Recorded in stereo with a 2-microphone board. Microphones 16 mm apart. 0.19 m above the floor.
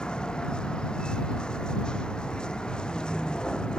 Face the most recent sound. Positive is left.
turn(degrees=85)